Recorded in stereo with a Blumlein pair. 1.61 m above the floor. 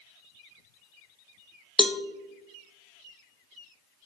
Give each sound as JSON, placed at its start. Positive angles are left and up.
{"t": 1.8, "sound": "a cowbell", "azimuth_deg": 10, "distance_m": 0.6}